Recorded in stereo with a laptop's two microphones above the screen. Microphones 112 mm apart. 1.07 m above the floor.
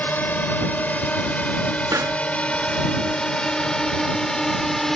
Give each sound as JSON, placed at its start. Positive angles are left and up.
{"t": 0.0, "sound": "a drone", "side_deg": 15}
{"t": 1.9, "sound": "a pop", "side_deg": -30}